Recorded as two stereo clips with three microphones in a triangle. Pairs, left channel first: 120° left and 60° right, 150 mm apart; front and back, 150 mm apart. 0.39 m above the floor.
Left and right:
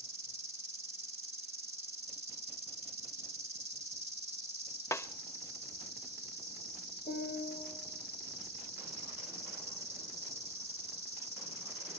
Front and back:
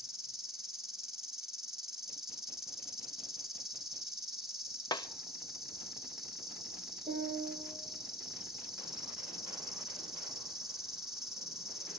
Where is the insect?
90° right, 2.5 m.